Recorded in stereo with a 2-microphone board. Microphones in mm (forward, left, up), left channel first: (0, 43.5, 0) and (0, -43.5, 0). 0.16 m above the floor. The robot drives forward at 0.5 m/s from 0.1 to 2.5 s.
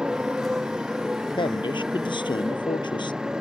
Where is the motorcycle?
10° right (ahead or behind).